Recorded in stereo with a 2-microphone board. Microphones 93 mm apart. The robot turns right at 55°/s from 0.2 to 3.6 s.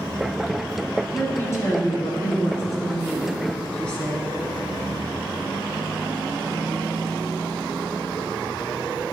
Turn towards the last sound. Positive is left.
turn(degrees=170)